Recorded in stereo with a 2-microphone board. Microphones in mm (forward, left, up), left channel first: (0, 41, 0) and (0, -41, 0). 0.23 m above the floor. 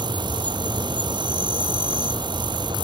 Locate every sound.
0.0 s an insect: 70° right (ahead or behind)